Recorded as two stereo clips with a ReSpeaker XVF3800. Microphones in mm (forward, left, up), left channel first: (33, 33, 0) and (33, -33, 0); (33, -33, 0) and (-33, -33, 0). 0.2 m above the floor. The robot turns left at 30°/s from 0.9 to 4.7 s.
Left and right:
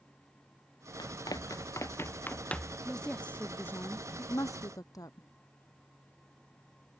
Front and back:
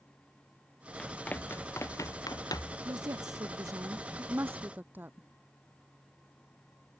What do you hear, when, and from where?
1.0 s running footsteps: 75° left; by 2.8 s 5° left
2.9 s a woman speaking: 175° left; by 5.3 s 120° left